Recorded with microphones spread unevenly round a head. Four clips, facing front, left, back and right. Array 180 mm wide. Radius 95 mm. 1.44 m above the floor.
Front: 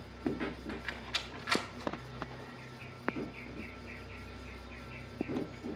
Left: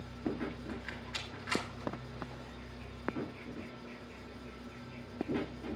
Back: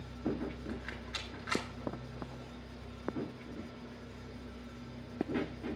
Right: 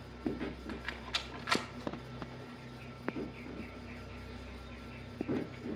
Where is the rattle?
75° right, 1.1 m.